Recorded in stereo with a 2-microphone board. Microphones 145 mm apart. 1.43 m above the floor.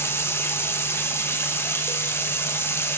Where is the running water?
15° left (ahead or behind), 0.8 m.